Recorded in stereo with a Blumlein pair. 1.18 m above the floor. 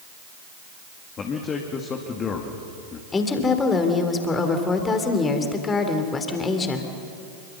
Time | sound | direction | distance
1.2 | a man speaking | 25° left | 2 m
3.1 | a woman speaking | 15° left | 3 m